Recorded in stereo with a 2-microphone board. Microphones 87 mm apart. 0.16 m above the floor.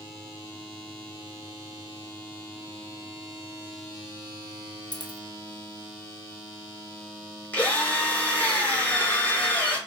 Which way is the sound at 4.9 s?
55° left (ahead or behind).